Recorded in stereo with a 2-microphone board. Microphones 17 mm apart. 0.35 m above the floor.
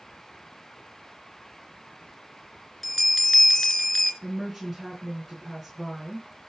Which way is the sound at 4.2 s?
5° right (ahead or behind).